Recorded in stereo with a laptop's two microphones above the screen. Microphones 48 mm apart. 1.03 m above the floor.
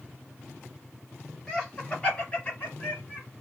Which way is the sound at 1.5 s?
15° left (ahead or behind).